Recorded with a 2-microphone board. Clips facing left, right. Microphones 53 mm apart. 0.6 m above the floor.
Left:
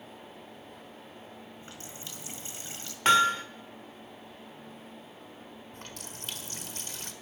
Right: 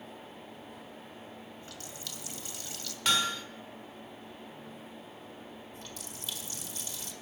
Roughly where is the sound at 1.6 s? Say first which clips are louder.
Even; left.